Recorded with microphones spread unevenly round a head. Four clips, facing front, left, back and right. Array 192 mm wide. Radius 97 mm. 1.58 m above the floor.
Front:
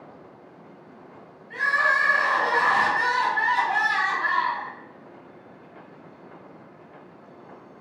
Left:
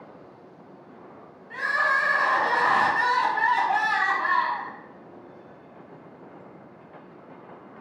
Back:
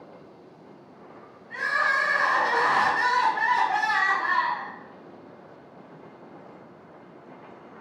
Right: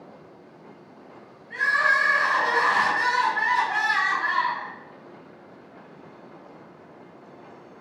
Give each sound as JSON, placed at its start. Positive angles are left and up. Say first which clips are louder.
{"t": 1.5, "sound": "crying", "louder": "right 2 dB, front 2 dB", "azimuth_deg": 90, "distance_m": 0.8}